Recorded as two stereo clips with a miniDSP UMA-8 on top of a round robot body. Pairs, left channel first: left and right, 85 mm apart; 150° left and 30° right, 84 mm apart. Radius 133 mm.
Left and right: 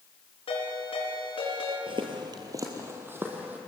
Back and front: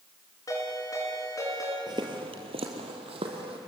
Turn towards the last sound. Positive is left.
turn(degrees=-20)